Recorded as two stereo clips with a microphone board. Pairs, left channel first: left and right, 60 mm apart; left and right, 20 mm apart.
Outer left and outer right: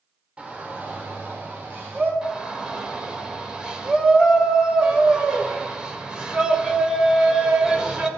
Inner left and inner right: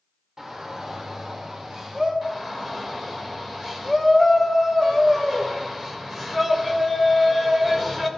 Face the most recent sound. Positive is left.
turn(degrees=-15)  # may be behind; listen again after turning